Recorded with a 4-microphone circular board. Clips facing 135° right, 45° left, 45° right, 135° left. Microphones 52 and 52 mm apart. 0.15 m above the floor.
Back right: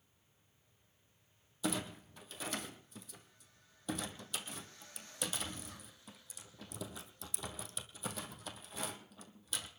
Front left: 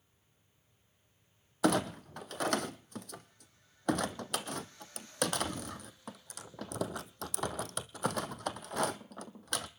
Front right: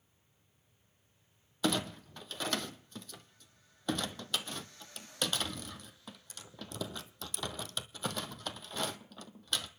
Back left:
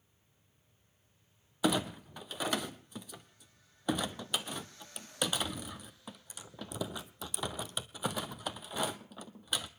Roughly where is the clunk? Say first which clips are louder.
Front left 9 dB, back left 2 dB; ahead left.